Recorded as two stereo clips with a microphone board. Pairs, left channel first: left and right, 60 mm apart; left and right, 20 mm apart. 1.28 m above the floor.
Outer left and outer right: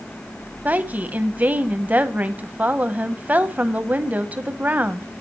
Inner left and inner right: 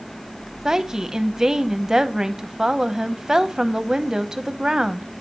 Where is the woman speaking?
25° right (ahead or behind), 0.6 m.